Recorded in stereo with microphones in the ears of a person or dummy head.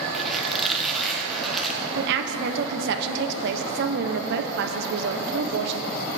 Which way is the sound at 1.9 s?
65° right (ahead or behind).